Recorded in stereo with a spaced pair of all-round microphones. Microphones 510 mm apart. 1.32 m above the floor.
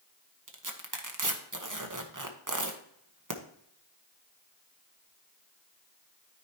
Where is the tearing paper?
35° right (ahead or behind), 1.0 m.